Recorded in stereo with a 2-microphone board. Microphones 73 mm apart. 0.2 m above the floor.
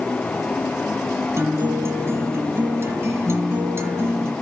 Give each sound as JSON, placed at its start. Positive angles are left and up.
{"t": 1.4, "sound": "a guitar", "side_deg": -35, "distance_m": 1.6}